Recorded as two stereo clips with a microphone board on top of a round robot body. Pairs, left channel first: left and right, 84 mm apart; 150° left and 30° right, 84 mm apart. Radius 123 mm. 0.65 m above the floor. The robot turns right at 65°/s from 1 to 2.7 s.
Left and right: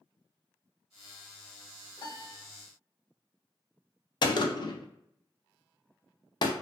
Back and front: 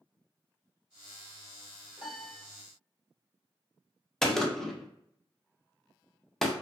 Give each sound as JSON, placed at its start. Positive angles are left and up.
{"t": 2.0, "sound": "a piano", "azimuth_deg": 50, "distance_m": 1.3}
{"t": 4.2, "sound": "a gunshot", "azimuth_deg": 65, "distance_m": 0.5}